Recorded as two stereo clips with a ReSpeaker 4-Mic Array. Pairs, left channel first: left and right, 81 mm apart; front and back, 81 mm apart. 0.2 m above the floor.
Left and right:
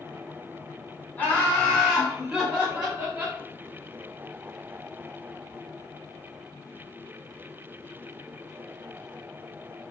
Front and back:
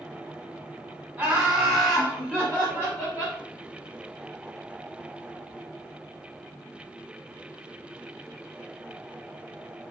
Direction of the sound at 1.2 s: 130° left.